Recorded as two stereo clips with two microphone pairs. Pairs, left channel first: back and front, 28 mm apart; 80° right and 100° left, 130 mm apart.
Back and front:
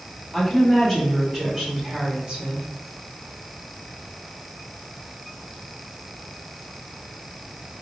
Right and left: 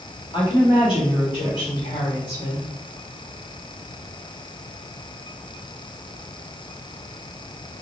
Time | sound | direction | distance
0.3 | a woman speaking | 110° right | 1.9 m